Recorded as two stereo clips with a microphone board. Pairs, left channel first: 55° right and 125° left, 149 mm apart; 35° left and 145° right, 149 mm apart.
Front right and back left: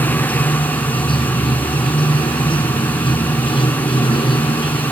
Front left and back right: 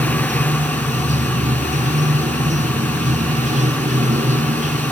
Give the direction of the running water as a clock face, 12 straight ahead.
4 o'clock.